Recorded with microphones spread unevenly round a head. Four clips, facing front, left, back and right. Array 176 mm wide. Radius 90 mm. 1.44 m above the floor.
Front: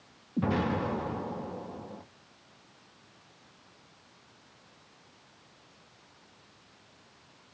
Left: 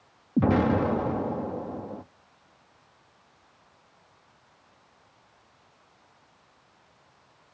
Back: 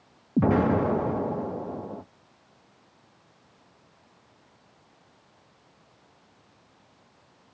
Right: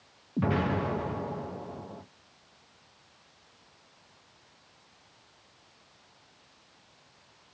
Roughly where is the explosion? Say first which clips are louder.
Left 6 dB, back 7 dB; behind left.